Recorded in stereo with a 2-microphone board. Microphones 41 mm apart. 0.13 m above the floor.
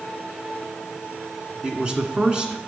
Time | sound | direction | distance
1.6 | a man speaking | 20° right (ahead or behind) | 1.1 m